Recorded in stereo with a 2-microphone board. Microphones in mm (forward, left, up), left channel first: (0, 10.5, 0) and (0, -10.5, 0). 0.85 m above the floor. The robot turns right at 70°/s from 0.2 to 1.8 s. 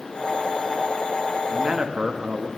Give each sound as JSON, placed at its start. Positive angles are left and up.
{"t": 1.5, "sound": "a man speaking", "side_deg": -20, "distance_m": 0.8}